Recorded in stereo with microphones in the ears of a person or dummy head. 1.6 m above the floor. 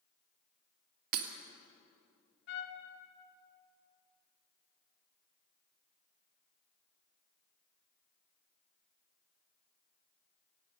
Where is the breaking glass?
50° right (ahead or behind), 1.6 m.